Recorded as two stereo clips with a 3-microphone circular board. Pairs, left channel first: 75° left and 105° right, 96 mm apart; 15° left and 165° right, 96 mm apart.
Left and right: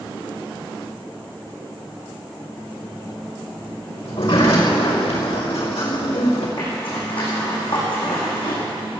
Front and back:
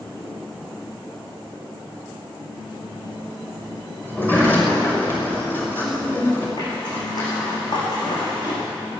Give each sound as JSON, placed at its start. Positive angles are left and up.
{"t": 4.0, "sound": "a sliding door", "azimuth_deg": 85, "distance_m": 4.5}
{"t": 6.6, "sound": "a zipper", "azimuth_deg": 55, "distance_m": 8.0}